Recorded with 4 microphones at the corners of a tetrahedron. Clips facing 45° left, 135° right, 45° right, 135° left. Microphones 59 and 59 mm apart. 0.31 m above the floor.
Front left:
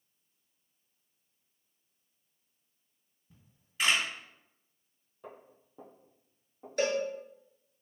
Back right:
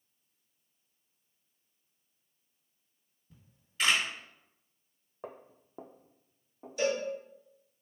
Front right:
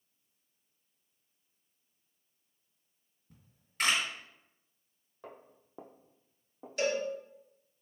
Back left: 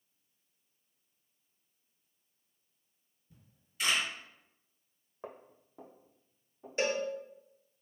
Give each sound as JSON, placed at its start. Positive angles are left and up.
{"t": 3.3, "sound": "a camera shutter", "azimuth_deg": -35, "distance_m": 1.6}
{"t": 5.2, "sound": "footsteps", "azimuth_deg": -165, "distance_m": 0.6}
{"t": 6.8, "sound": "a cowbell", "azimuth_deg": 70, "distance_m": 0.9}